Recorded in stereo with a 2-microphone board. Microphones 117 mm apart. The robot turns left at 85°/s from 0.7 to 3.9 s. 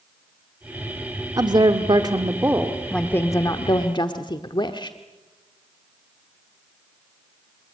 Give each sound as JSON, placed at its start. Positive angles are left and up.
{"t": 1.4, "sound": "a woman speaking", "azimuth_deg": -55, "distance_m": 1.1}